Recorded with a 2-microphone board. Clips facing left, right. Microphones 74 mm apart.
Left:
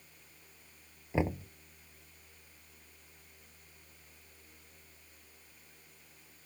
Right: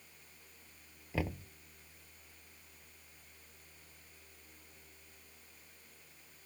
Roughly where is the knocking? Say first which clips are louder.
Left 6 dB; left.